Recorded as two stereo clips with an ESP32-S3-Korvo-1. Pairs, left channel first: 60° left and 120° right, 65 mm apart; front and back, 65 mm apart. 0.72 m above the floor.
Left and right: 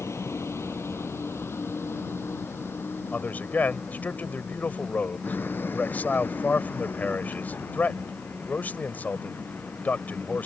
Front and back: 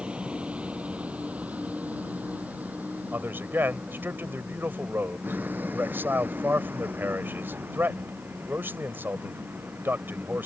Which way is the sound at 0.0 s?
105° left.